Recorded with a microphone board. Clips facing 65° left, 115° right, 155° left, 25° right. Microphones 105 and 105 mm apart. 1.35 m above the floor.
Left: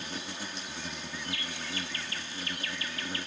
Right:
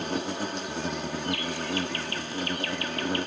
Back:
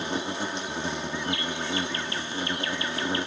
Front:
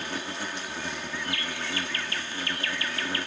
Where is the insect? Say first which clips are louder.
Right 10 dB, back 4 dB; 135° right.